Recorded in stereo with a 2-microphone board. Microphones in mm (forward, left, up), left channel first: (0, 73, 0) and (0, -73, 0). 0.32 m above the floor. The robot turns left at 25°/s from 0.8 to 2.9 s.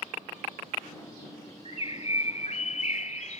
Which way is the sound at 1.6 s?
125° left.